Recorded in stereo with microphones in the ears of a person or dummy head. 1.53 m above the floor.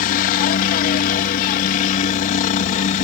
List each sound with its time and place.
0.0 s a helicopter: 45° left (ahead or behind); by 3.0 s 40° left (ahead or behind)